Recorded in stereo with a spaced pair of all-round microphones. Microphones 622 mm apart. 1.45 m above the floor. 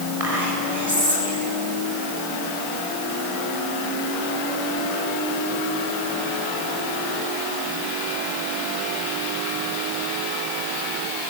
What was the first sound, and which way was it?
Whispering, 70° right (ahead or behind).